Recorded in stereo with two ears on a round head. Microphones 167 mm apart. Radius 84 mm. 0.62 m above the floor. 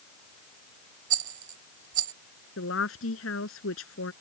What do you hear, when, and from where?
1.1 s a rattle: 40° right (ahead or behind)
2.6 s a woman speaking: 80° left